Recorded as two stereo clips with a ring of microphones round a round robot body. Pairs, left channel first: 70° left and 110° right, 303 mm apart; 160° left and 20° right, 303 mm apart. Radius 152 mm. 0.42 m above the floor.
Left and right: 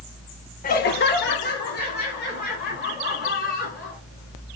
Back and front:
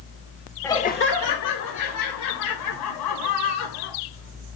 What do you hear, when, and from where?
0.6 s laughter: 80° left, 0.8 m; by 4.0 s 130° left, 5 m